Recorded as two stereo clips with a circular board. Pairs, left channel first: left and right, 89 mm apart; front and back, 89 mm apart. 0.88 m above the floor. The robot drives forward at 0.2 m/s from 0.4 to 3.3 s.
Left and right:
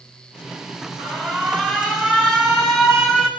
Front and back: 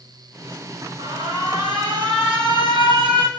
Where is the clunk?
I don't hear a clunk.